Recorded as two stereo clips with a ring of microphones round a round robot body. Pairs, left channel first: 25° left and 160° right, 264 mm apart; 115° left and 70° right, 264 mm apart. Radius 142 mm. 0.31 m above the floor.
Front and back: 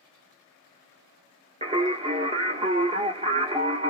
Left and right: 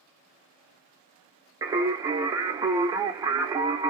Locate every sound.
1.6 s singing: 130° right, 1.1 m